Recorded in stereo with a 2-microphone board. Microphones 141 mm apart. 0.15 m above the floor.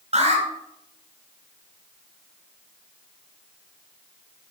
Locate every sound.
0.1 s an alarm: 55° right (ahead or behind), 3 m